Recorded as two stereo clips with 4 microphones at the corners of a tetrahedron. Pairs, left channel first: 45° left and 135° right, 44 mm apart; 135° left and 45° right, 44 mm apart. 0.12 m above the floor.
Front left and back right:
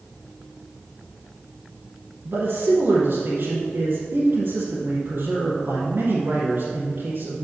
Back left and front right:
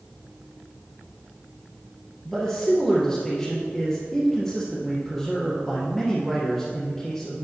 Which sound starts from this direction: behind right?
A man speaking, at 2.2 s.